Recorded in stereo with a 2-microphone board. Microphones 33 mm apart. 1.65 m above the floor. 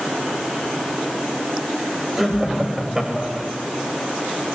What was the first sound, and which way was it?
Laughter, 10° right (ahead or behind).